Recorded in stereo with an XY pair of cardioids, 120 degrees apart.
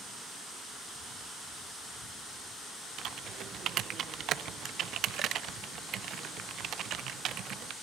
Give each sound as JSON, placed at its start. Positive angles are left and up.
{"t": 3.0, "sound": "typing on a keyboard", "azimuth_deg": -60, "distance_m": 0.5}